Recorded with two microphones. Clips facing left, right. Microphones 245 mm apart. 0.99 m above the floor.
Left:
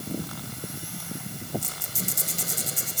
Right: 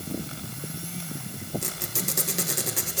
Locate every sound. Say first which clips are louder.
1.6 s a squeak: right 3 dB; 75° right (ahead or behind), 5.5 m